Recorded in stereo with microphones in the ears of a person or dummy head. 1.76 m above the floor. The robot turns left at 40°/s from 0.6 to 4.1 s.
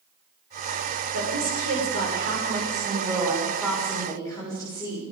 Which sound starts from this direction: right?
A woman speaking, at 1.1 s.